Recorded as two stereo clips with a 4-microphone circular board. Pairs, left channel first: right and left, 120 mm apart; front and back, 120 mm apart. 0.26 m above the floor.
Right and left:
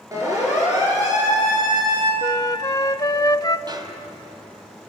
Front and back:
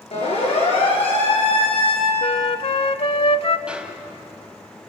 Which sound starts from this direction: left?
A snare drum, at 3.7 s.